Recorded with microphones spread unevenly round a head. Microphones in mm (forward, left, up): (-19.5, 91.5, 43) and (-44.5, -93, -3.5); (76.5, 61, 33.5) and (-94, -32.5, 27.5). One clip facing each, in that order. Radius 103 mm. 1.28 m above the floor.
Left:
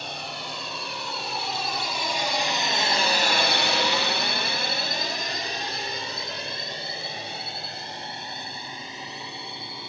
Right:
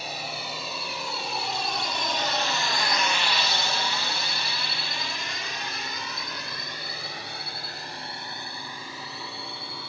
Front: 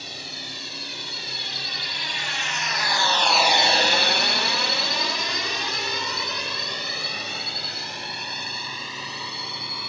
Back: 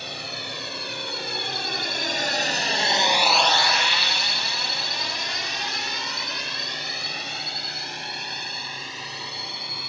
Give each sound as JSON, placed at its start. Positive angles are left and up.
{"t": 0.0, "sound": "a drone", "azimuth_deg": 175}